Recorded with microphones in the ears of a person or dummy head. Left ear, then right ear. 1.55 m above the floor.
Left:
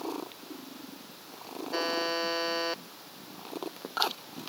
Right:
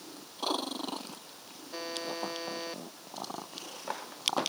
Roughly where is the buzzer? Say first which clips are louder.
Left 7 dB; left.